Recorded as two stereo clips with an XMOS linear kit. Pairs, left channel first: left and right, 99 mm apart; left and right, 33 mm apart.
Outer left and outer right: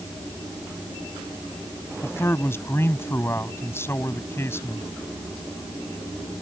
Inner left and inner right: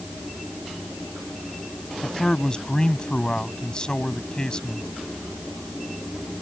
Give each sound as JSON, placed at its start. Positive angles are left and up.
{"t": 2.0, "sound": "a man speaking", "side_deg": 25}